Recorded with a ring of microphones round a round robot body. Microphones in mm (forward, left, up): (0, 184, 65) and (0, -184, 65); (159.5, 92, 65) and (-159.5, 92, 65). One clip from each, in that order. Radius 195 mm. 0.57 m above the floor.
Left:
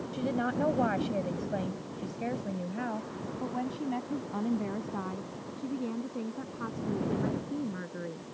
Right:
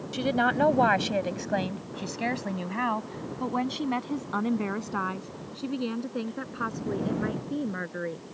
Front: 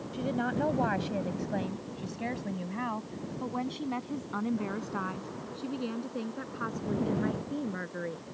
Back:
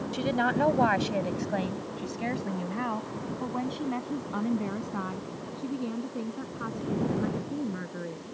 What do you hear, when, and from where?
0.1 s a woman speaking: 120° right; by 8.2 s 60° right